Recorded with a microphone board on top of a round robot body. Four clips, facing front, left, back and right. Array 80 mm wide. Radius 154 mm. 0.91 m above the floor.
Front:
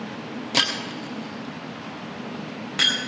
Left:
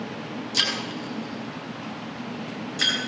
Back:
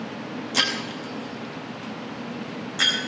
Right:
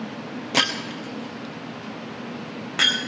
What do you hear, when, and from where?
0.5 s breaking glass: 70° right, 2.5 m